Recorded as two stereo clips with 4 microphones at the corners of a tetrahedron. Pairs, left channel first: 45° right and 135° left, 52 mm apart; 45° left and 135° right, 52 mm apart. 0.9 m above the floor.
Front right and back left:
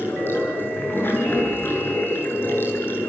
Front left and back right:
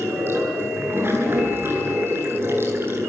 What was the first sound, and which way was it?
Running water, 95° right.